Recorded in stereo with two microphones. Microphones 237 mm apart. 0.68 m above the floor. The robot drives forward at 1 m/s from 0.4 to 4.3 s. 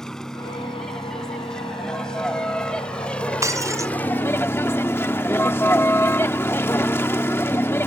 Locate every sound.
0.0 s a vehicle: centre (ahead or behind); by 7.9 s 10° left (ahead or behind)
3.4 s breaking glass: 10° right (ahead or behind)